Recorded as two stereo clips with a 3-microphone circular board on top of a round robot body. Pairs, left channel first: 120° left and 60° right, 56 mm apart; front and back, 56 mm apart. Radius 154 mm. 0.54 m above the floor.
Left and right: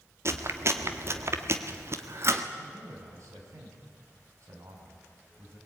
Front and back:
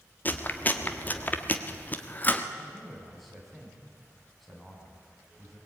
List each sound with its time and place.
0.2 s chewing: 50° right, 1.9 m
2.6 s a man speaking: 90° right, 6 m